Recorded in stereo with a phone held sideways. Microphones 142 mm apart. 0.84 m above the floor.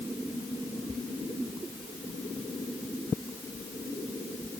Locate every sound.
Only background noise.